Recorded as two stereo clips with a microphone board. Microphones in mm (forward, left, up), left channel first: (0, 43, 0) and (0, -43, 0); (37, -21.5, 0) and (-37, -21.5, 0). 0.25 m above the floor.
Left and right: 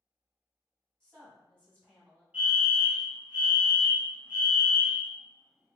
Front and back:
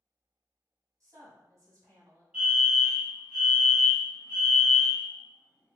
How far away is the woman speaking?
About 1.4 m.